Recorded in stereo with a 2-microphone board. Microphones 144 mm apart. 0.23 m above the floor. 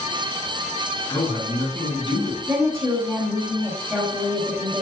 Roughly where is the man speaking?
Left.